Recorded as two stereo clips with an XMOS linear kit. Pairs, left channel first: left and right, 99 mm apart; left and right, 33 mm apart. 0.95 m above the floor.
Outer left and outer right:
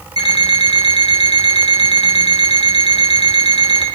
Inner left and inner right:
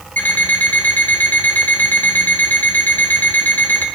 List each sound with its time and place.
0.2 s an alarm clock: 70° left (ahead or behind), 2.5 m